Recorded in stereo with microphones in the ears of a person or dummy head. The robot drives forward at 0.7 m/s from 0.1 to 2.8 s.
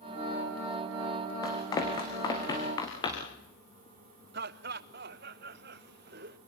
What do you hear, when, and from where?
1.4 s running footsteps: 25° left (ahead or behind), 4 m; by 3.4 s 30° left (ahead or behind), 7.5 m
4.3 s laughter: 55° right (ahead or behind), 0.8 m